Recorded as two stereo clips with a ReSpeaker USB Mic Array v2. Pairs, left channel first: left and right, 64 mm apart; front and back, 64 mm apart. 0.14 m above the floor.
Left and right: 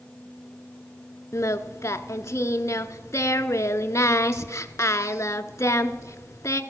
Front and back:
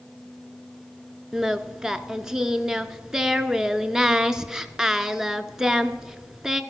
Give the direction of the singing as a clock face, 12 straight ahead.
9 o'clock.